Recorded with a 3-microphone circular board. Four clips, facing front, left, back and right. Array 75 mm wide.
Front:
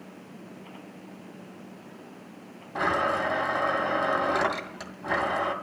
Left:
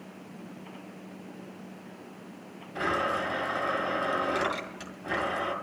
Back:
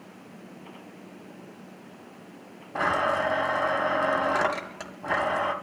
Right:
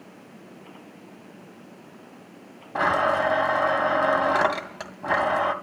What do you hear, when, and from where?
2.8 s a blender: 105° right, 2 m